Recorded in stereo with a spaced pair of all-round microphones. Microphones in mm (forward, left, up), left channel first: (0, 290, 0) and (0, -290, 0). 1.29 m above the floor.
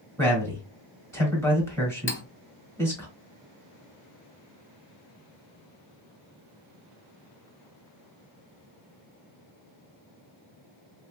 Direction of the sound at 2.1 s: 20° left (ahead or behind).